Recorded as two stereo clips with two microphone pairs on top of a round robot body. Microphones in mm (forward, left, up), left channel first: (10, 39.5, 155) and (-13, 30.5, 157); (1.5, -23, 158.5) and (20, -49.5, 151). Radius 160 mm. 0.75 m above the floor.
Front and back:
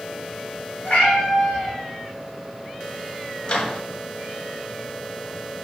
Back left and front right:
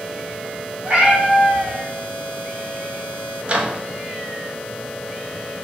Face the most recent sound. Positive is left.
turn(degrees=-15)